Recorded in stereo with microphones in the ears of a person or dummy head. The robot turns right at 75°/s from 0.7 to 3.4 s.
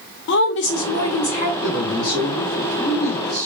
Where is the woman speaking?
70° left, 0.8 m; by 1.5 s 130° left, 0.8 m.